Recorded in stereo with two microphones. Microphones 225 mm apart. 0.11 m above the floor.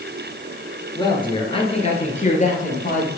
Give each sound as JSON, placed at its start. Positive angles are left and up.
{"t": 0.9, "sound": "a man speaking", "side_deg": 20, "distance_m": 2.5}